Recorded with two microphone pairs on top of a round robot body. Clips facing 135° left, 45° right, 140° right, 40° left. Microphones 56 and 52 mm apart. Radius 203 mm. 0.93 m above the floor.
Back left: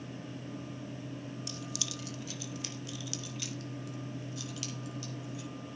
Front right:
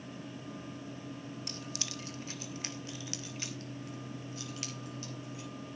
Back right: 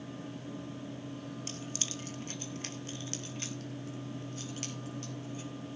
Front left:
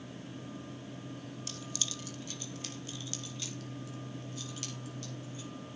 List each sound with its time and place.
1.5 s keys jangling: 85° right, 0.7 m; by 5.5 s 95° right, 6 m